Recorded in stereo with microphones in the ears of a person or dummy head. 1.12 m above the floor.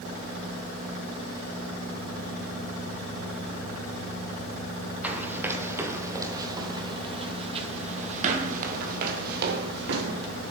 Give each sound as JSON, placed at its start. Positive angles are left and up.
{"t": 5.0, "sound": "running footsteps", "side_deg": -5, "distance_m": 3.0}